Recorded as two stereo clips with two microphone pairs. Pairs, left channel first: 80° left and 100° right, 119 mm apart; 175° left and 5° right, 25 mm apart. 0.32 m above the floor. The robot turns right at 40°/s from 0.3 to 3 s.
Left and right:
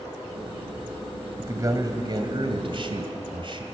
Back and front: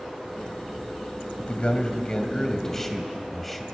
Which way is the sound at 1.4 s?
160° right.